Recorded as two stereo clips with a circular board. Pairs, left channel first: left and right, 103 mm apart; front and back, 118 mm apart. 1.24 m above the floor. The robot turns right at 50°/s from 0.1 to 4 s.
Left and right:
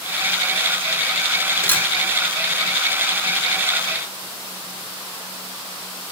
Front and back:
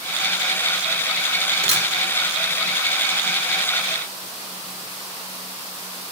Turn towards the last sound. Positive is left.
turn(degrees=-85)